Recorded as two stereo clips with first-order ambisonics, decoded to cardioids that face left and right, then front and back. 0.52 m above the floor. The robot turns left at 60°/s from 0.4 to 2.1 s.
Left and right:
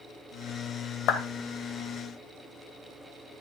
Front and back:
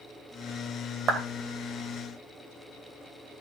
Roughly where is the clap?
Behind left.